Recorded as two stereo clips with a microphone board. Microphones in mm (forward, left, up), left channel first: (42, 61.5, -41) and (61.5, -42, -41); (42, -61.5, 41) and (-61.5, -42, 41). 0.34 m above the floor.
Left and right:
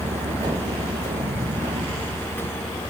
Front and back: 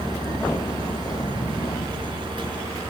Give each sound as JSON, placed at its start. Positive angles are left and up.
{"t": 0.0, "sound": "a vehicle", "azimuth_deg": -75}